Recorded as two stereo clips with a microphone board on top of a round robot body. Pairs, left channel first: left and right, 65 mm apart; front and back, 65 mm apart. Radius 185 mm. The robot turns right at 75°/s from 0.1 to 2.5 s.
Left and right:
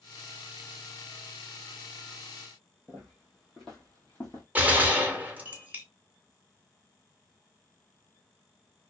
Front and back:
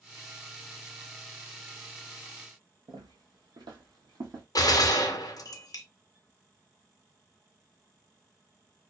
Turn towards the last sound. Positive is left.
turn(degrees=-25)